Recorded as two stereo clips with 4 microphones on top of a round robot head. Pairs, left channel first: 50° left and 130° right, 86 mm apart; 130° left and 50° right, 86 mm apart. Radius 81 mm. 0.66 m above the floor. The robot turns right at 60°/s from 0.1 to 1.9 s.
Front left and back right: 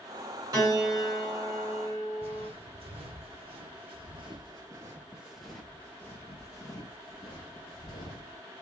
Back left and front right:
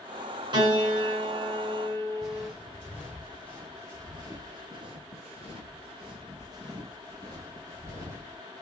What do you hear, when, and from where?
0.5 s a piano: 75° right, 2.5 m; by 2.5 s 5° left, 2.5 m
2.2 s footsteps: 130° right, 1.7 m; by 8.4 s 10° left, 1.9 m